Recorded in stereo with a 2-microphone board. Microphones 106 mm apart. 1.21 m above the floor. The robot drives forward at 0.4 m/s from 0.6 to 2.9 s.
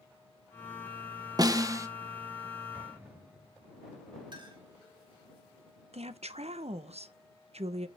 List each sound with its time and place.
1.4 s a snare drum: 40° right (ahead or behind), 0.6 m; by 1.9 s 30° right (ahead or behind), 0.8 m
2.7 s an explosion: 20° right (ahead or behind), 4 m
4.3 s a clink: 45° right (ahead or behind), 2.0 m
5.9 s a woman speaking: 85° right, 0.6 m